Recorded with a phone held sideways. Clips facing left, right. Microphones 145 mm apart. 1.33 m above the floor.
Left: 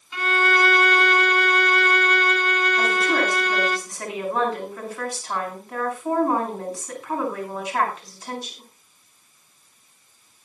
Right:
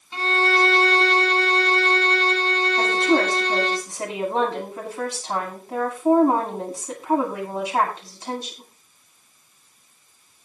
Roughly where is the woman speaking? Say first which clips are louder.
Right 5 dB; right.